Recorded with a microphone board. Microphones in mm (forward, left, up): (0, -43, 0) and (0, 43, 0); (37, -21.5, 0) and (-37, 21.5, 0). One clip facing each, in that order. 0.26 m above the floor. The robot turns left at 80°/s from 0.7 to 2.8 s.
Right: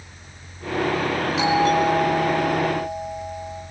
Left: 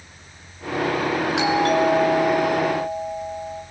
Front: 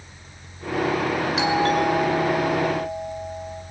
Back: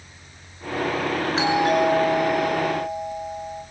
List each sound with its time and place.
1.4 s a doorbell: 100° left, 5.5 m; by 3.6 s 15° right, 5.5 m